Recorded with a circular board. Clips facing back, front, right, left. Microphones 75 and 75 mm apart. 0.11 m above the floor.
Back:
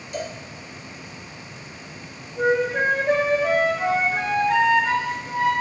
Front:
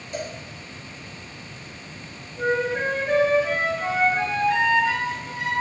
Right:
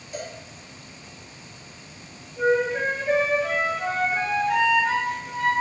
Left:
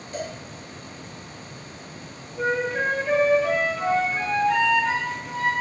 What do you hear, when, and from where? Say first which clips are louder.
0.1 s a cowbell: back 1 dB, left 3 dB; 25° right, 2 m
2.4 s a flute: back 3 dB, right 3 dB; 170° right, 1.7 m